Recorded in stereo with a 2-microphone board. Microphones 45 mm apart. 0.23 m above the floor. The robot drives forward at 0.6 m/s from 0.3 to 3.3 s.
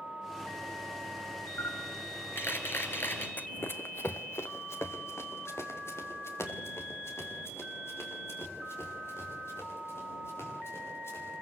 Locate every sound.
1.6 s a camera shutter: 65° left (ahead or behind), 3 m; by 3.3 s 55° left (ahead or behind), 3 m
3.4 s running footsteps: 40° left (ahead or behind), 1.0 m; by 11.3 s 70° left (ahead or behind), 11 m